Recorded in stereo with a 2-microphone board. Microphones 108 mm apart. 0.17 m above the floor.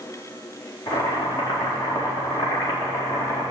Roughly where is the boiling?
Left.